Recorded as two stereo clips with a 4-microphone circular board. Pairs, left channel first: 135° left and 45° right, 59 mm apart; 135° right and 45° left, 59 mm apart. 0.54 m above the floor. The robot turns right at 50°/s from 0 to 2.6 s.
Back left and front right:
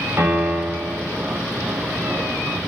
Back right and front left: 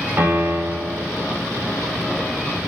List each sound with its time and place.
0.2 s a piano: 5° left, 3.5 m; by 1.1 s 50° left, 3.5 m